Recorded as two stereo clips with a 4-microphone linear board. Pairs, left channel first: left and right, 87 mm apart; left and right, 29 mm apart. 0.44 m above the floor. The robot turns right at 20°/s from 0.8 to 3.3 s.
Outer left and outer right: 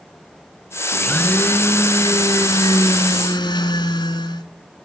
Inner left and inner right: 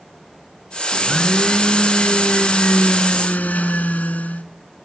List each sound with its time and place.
0.9 s a blender: 15° left, 1.4 m; by 4.5 s 60° left, 1.4 m